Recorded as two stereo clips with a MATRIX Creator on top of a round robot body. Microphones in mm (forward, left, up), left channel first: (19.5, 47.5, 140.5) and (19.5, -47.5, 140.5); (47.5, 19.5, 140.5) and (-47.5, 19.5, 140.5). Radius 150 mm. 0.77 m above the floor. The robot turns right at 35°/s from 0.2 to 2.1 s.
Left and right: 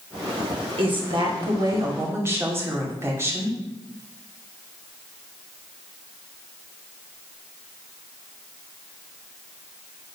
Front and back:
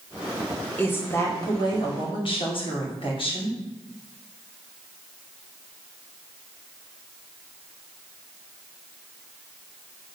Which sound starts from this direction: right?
A woman speaking, at 0.8 s.